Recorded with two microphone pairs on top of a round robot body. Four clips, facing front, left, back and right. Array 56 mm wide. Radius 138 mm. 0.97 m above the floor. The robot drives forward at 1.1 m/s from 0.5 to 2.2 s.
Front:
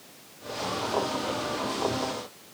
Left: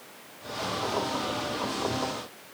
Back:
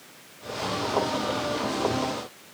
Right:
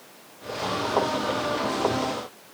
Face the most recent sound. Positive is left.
No sound to turn to.